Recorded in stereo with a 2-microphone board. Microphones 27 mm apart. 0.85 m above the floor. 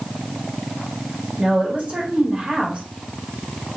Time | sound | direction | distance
1.4 | a woman speaking | 45° right (ahead or behind) | 1.9 m